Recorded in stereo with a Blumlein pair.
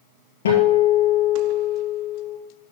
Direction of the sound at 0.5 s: 65° left.